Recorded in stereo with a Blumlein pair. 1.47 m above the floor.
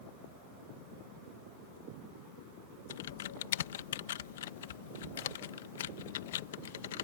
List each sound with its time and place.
2.9 s typing on a keyboard: 60° left